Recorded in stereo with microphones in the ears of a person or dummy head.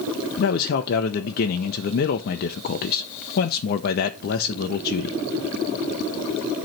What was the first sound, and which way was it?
A man speaking, 50° left (ahead or behind).